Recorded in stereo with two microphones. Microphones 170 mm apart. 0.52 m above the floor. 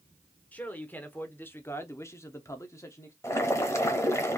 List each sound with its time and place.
0.5 s a man speaking: 10° left (ahead or behind), 1.4 m; by 3.1 s 15° left (ahead or behind), 0.8 m
3.2 s boiling: 15° left (ahead or behind), 1.0 m